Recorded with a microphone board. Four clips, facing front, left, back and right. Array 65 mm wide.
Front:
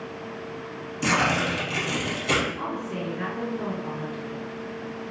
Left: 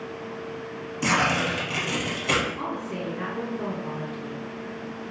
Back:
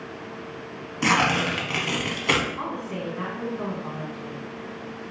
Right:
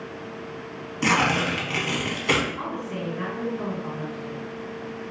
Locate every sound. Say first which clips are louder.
1.0 s tearing paper: right 1 dB, back 2 dB; 155° right, 0.8 m
2.6 s a woman speaking: even, even; 165° right, 1.9 m